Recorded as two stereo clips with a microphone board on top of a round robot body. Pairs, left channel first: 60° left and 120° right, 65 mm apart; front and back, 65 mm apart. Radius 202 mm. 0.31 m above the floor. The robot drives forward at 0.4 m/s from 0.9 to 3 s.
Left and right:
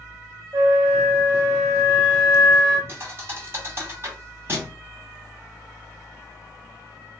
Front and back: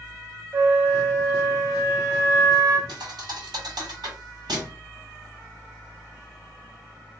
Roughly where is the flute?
Behind right.